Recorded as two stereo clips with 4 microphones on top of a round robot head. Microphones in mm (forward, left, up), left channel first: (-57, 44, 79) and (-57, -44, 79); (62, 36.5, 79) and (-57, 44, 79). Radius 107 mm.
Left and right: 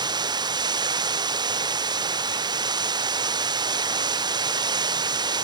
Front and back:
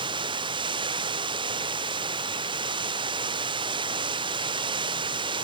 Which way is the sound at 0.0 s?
130° right.